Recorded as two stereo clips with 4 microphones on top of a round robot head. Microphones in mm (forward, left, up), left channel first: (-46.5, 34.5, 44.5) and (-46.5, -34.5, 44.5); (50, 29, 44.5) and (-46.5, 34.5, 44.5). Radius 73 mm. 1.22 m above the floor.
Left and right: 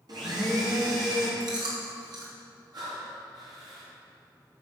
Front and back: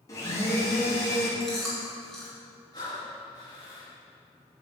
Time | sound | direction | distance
0.1 | a blender | 65° right | 2.5 m
1.4 | chewing | 90° right | 2.5 m
2.7 | breathing | 60° right | 2.5 m